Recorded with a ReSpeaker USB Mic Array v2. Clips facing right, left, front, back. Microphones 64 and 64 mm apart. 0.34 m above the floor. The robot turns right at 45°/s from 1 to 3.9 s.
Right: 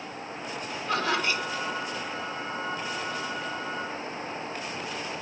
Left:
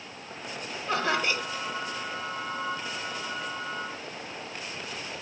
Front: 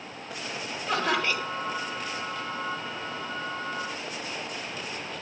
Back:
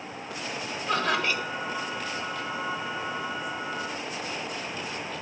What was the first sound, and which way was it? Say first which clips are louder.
Laughter: even, even; 75° left.